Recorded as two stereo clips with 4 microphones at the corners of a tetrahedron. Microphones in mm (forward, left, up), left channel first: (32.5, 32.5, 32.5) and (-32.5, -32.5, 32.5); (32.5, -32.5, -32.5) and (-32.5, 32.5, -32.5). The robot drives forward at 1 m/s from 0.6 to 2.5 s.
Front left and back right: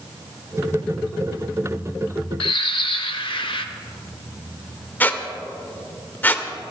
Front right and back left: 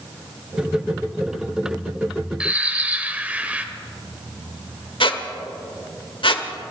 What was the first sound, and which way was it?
A bird, 60° left.